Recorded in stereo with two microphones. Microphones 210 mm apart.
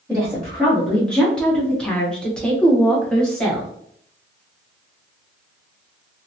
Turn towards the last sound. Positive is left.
turn(degrees=5)  # may be behind; listen again after turning